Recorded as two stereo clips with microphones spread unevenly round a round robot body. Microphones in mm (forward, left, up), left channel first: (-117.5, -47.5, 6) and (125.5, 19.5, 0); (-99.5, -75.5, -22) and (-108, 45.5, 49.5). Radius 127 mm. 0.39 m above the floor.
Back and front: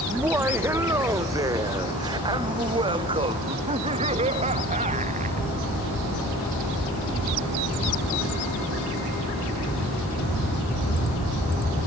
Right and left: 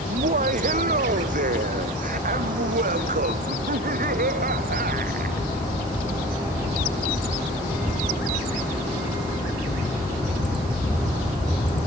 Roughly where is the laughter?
Left.